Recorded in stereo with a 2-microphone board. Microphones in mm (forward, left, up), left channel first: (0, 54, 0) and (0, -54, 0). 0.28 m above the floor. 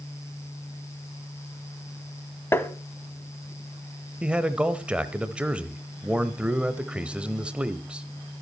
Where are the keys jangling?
I don't hear keys jangling.